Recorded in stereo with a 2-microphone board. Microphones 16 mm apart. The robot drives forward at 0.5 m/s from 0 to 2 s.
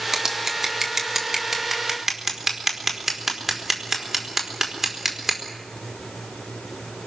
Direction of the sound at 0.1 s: 25° right (ahead or behind).